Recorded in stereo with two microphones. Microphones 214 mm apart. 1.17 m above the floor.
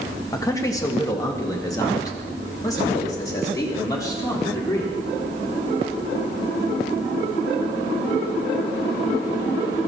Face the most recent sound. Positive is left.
turn(degrees=15)  # may be behind; listen again after turning